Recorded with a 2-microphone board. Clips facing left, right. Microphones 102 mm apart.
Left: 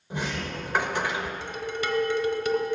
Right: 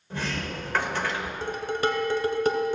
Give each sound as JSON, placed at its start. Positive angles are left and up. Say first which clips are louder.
{"t": 0.1, "sound": "a sliding door", "louder": "even", "side_deg": 15, "distance_m": 0.9}
{"t": 1.4, "sound": "dishes clattering", "louder": "right 4 dB", "side_deg": -40, "distance_m": 1.0}